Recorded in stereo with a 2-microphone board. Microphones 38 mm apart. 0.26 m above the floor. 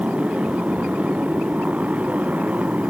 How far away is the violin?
No violin in this recording.